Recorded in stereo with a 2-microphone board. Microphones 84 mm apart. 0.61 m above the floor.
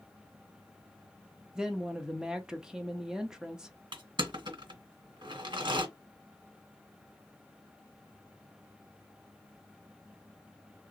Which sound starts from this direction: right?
Crushing, at 3.9 s.